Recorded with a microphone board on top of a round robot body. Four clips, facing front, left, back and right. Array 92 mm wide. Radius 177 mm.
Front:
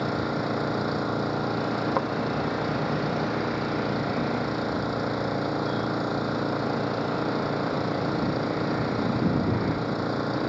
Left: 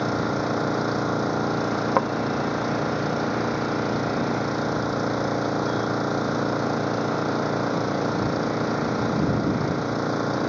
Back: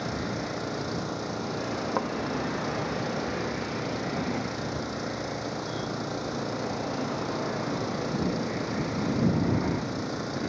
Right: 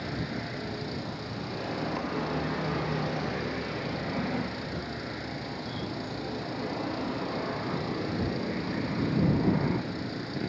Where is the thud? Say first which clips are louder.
Left 12 dB, front 1 dB; 85° left.